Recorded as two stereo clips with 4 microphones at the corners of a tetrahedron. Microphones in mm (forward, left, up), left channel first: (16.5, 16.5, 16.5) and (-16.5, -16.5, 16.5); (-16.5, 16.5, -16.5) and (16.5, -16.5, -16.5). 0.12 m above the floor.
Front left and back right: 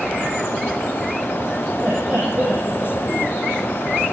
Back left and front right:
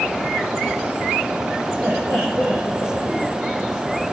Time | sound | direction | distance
1.8 | laughter | 90° right | 6.5 m